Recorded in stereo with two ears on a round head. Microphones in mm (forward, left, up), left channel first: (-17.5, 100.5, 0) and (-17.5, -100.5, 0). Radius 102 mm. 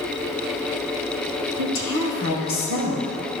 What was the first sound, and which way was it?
A woman speaking, 55° left (ahead or behind).